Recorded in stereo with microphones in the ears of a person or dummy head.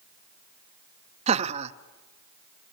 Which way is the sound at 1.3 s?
30° right (ahead or behind).